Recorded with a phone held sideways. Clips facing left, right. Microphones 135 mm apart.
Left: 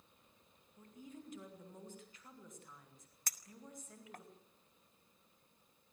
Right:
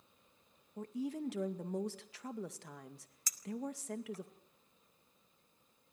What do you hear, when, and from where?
0.8 s a woman speaking: 85° right, 2 m
3.3 s a clink: 60° left (ahead or behind), 1.6 m